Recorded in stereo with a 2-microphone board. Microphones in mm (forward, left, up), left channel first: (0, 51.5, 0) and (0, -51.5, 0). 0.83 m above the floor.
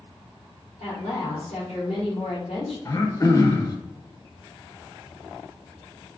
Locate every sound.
0.8 s a woman speaking: 80° left, 1.7 m
2.9 s throat clearing: 35° left (ahead or behind), 0.5 m